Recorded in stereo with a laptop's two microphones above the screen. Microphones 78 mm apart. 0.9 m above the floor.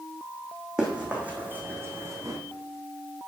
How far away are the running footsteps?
About 3 m.